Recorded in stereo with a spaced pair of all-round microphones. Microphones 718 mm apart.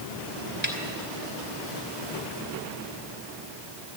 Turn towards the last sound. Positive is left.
turn(degrees=-15)  # may be behind; listen again after turning